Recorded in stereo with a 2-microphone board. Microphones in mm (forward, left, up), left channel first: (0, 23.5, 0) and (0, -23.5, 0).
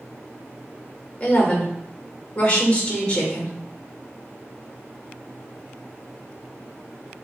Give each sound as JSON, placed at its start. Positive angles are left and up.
{"t": 1.2, "sound": "a woman speaking", "side_deg": 30, "distance_m": 1.1}